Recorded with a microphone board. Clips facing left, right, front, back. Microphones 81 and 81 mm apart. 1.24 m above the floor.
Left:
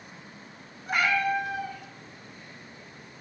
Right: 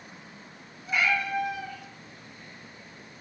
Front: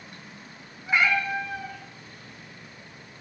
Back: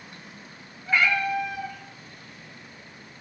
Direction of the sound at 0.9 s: 75° left.